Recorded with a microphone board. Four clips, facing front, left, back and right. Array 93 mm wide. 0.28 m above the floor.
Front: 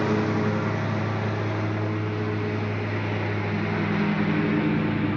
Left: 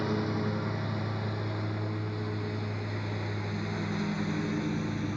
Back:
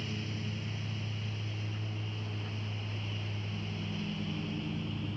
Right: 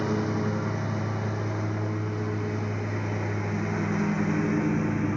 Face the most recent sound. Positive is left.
turn(degrees=-25)